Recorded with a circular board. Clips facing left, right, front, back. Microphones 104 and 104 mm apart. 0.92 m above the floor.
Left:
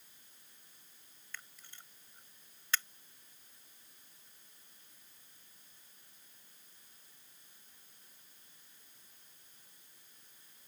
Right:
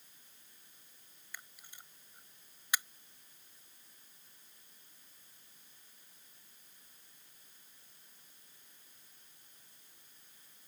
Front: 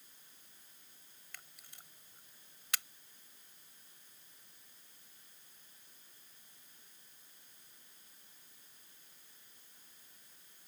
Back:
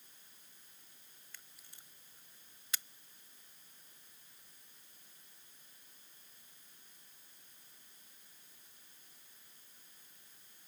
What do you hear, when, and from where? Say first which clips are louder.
1.3 s a camera shutter: left 1 dB, front 4 dB; 10° right